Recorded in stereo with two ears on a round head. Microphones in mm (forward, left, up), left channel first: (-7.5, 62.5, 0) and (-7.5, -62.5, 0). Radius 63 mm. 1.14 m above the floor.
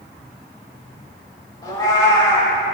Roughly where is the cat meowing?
Left.